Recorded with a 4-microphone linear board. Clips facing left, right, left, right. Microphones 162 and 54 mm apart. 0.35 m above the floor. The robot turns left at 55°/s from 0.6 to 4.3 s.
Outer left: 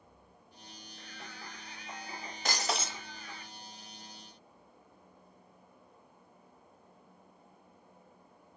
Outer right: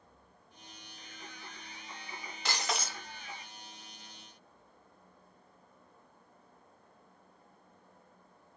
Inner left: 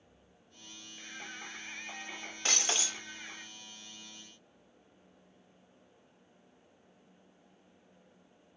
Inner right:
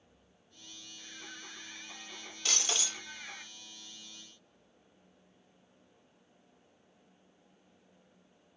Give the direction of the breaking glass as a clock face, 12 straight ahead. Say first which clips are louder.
Outer left 2 dB, inner left 2 dB; 10 o'clock.